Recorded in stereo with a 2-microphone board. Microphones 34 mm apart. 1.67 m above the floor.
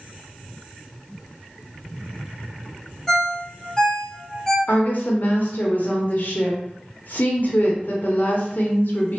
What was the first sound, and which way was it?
A ringtone, 10° left (ahead or behind).